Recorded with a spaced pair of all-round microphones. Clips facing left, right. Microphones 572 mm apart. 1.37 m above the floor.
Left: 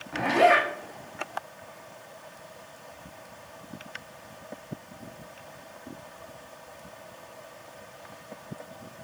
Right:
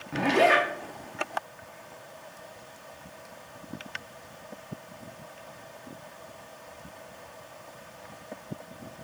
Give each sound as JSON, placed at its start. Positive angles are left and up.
{"t": 0.1, "sound": "a zipper", "side_deg": -55, "distance_m": 0.6}